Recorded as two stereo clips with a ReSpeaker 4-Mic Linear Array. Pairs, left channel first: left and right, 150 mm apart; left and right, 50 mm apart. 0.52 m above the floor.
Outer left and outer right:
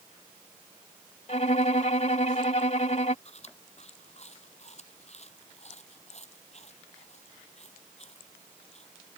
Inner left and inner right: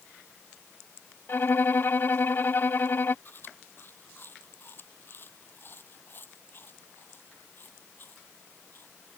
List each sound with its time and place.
1.3 s a violin: 50° left (ahead or behind)
3.2 s chewing: 45° left (ahead or behind)